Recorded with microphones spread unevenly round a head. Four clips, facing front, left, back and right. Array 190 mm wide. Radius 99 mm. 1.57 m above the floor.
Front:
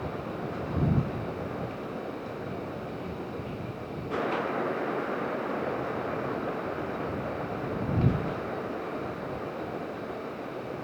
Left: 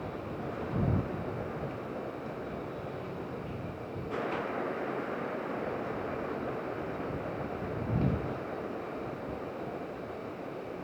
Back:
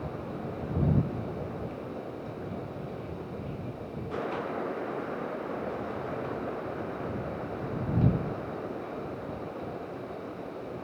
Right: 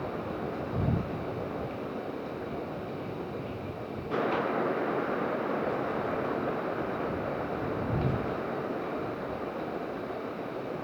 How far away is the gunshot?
No gunshot in this recording.